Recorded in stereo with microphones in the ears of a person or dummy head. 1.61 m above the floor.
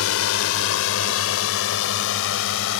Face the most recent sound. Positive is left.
turn(degrees=70)  # may be behind; listen again after turning